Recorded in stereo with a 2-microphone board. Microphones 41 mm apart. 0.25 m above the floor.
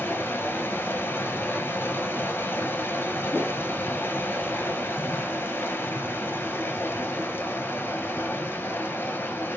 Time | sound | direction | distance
0.0 | running water | 70° left (ahead or behind) | 0.9 m
3.3 | a whoosh | 60° right (ahead or behind) | 1.3 m